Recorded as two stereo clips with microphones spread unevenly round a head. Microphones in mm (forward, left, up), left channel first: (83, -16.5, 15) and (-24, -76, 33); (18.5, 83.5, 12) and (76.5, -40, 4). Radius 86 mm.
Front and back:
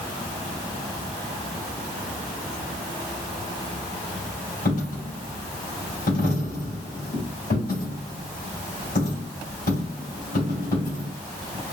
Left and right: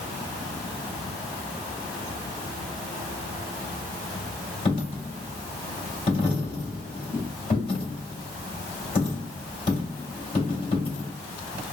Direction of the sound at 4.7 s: 70° left.